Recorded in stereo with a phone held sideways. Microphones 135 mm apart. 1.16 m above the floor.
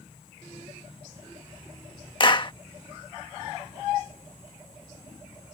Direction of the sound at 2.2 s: 35° left (ahead or behind).